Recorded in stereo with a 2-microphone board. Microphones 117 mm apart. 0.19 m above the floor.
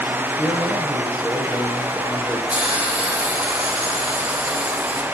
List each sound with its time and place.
0.4 s a man speaking: 10° right (ahead or behind), 6 m
2.5 s a hiss: 10° right (ahead or behind), 6.5 m